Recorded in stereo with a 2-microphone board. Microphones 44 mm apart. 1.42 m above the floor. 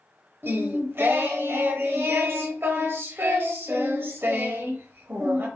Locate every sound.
0.4 s singing: 55° right (ahead or behind), 0.7 m